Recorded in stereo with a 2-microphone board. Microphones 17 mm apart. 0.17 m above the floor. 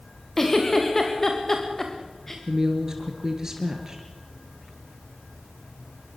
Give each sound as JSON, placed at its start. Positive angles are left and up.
{"t": 0.4, "sound": "a giggle", "side_deg": 20, "distance_m": 4.5}
{"t": 2.5, "sound": "a woman speaking", "side_deg": -30, "distance_m": 2.5}